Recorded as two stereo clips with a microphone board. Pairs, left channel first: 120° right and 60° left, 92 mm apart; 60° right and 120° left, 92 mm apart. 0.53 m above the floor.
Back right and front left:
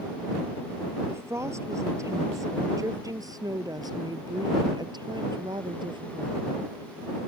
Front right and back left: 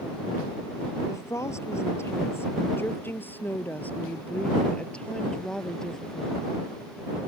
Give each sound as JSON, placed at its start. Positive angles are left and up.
{"t": 1.1, "sound": "a woman speaking", "azimuth_deg": 0}